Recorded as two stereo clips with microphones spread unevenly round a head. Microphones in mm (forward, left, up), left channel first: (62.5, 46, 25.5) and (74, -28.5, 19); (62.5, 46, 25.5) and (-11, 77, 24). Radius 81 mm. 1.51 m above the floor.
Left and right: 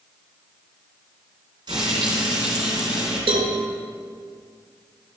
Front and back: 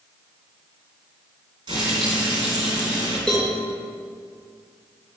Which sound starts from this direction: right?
A cowbell, at 3.3 s.